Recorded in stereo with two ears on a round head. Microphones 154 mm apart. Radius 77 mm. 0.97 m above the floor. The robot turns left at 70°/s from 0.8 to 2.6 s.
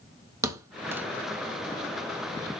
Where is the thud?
15° right (ahead or behind), 0.8 m; by 1.1 s 10° right (ahead or behind), 0.8 m.